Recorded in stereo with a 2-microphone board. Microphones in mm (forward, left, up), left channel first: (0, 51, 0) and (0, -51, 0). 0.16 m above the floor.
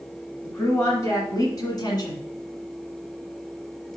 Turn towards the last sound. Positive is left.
turn(degrees=40)  # may be behind; listen again after turning